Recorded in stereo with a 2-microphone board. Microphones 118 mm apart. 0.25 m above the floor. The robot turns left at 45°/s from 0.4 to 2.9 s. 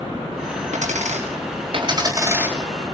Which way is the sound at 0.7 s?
90° right.